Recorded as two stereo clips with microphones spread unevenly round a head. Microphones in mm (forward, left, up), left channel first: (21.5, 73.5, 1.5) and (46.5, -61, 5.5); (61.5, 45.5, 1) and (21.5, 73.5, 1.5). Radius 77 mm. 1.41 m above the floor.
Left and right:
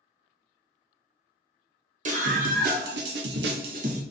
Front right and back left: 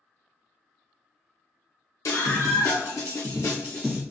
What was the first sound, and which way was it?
A scream, 45° right.